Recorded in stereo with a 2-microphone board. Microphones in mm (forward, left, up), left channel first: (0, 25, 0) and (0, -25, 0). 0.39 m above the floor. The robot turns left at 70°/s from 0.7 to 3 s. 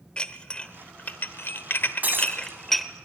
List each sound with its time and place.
0.2 s dishes clattering: 20° left (ahead or behind), 0.8 m; by 2.9 s centre (ahead or behind), 0.8 m
2.0 s breaking glass: 35° right (ahead or behind), 1.6 m; by 2.6 s 65° right (ahead or behind), 1.6 m